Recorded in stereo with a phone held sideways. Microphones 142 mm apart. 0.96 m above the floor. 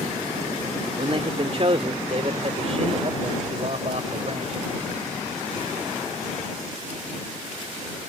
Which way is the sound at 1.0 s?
40° right (ahead or behind).